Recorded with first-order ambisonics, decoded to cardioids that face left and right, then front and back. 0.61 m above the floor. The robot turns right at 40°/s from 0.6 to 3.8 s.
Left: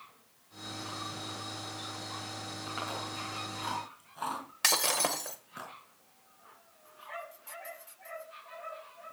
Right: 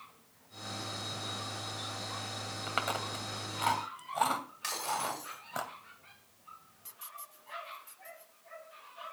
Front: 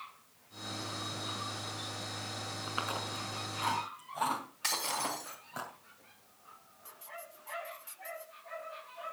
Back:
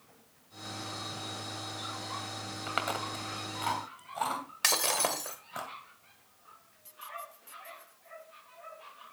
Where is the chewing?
150° right, 2 m; by 5.6 s 100° right, 2 m.